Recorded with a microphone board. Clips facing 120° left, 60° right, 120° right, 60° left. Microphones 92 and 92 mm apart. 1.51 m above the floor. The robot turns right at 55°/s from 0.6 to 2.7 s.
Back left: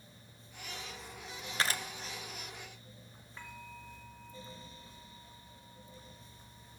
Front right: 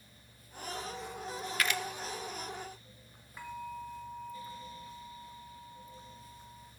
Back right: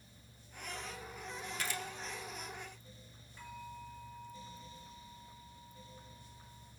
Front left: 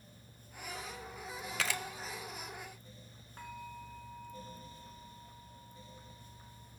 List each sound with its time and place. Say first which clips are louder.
1.6 s a camera shutter: even, front left 4 dB; 55° left, 0.9 m; by 1.8 s 70° left, 0.9 m
3.4 s a bell: front right 8 dB, front left 2 dB; 20° left, 2.5 m